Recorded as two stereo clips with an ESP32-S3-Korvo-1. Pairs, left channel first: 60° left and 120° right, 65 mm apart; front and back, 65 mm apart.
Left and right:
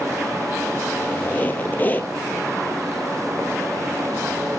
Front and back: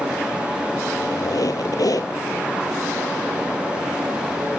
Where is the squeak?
Straight ahead, 1.6 m.